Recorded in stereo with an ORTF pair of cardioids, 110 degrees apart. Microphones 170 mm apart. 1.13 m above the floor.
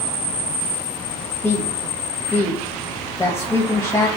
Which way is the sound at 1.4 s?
15° left.